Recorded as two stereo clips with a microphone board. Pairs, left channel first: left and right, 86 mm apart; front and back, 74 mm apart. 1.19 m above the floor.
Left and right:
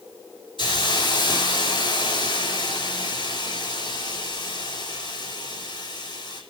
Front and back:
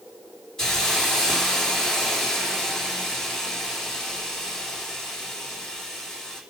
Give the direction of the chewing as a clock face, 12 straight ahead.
I don't hear chewing.